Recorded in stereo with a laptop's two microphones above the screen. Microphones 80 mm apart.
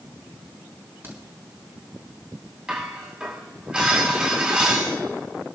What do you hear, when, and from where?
1.0 s a crack: 30° right (ahead or behind), 4.5 m
2.7 s dishes clattering: 15° right (ahead or behind), 5.5 m